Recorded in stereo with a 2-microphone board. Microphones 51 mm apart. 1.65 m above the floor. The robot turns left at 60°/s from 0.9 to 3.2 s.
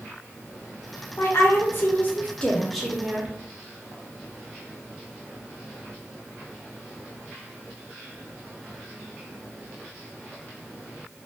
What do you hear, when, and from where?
1.2 s a woman speaking: 95° left, 0.6 m; by 3.3 s 25° right, 0.6 m